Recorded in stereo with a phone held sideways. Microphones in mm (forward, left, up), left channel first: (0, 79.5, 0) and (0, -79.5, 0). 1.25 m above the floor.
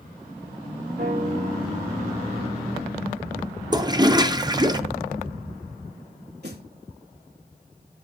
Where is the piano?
85° right, 3.5 m.